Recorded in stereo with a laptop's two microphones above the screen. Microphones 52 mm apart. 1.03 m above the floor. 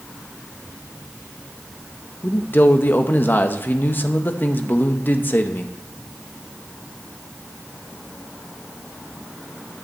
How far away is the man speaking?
About 0.8 m.